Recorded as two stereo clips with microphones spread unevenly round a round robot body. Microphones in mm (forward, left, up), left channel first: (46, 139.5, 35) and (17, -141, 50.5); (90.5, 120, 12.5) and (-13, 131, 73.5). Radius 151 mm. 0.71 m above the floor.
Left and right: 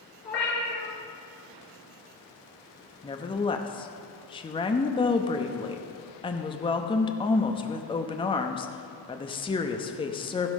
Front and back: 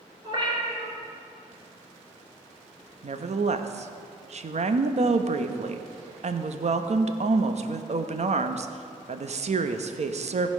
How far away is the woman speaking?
About 0.7 m.